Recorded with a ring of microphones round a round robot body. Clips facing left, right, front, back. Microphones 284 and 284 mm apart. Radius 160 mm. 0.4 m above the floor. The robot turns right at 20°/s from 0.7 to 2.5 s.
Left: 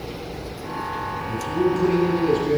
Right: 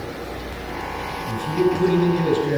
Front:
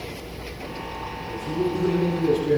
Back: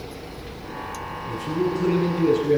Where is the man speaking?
95° right, 7.5 m; by 2.6 s 75° right, 7.5 m.